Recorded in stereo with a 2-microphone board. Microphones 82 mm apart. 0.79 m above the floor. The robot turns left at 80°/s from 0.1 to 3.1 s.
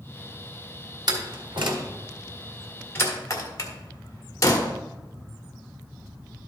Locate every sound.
1.1 s a door slam: 55° right (ahead or behind), 1.4 m; by 4.7 s 40° left (ahead or behind), 1.4 m